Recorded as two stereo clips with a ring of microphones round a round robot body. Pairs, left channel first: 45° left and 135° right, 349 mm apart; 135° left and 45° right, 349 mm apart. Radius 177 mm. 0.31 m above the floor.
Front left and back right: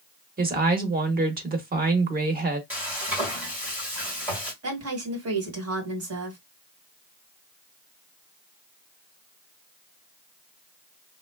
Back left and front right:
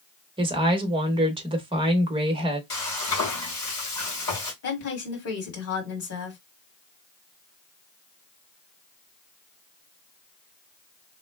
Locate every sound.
0.4 s a woman speaking: 105° right, 0.9 m
2.7 s frying: 140° left, 2 m
4.6 s a woman speaking: straight behind, 1.8 m